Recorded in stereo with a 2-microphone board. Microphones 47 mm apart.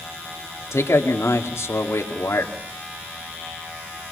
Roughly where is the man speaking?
Left.